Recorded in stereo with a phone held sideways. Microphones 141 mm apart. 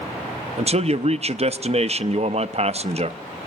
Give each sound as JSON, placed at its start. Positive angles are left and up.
{"t": 0.6, "sound": "a man speaking", "side_deg": -50, "distance_m": 0.6}